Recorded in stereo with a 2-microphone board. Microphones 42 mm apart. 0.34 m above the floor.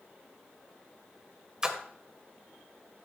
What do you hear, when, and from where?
1.6 s a splash: 15° right (ahead or behind), 1.3 m